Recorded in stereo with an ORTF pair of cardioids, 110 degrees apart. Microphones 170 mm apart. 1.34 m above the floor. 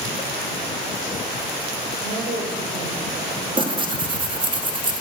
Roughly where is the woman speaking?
Ahead right.